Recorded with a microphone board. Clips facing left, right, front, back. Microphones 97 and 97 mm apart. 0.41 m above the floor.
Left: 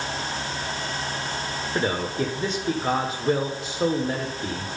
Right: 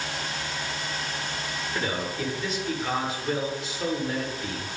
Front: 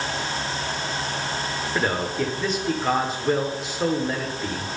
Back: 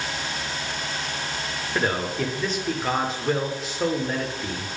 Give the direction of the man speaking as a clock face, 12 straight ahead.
9 o'clock.